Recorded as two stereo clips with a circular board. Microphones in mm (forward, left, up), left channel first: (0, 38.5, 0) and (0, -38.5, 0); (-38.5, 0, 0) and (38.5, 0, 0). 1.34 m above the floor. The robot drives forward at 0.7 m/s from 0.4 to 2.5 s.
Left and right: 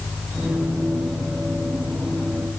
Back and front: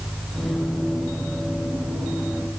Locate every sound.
Only background noise.